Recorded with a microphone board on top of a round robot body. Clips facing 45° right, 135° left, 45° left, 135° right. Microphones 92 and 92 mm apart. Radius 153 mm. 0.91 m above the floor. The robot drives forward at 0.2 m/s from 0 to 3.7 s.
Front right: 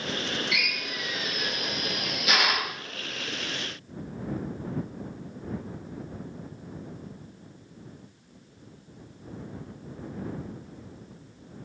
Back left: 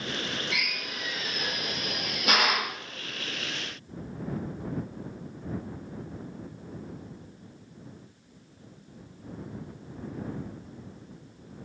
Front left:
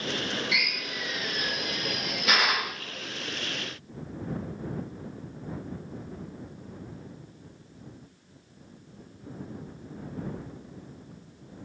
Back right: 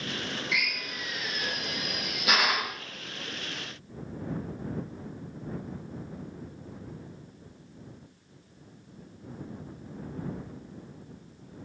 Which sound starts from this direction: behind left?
A drill, at 0.5 s.